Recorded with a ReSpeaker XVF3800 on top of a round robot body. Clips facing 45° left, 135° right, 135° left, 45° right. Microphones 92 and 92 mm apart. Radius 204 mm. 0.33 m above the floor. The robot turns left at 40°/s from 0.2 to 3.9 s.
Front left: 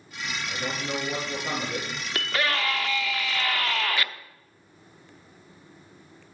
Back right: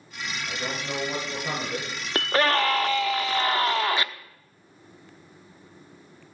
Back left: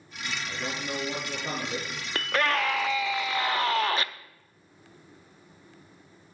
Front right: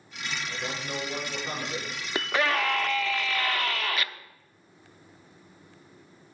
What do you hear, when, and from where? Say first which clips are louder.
0.5 s a man speaking: front left 1 dB, back left 3 dB; 155° right, 9 m; by 1.9 s 145° left, 9 m
2.1 s a scream: back right 6 dB, even; 120° right, 1.0 m; by 4.1 s 170° left, 1.0 m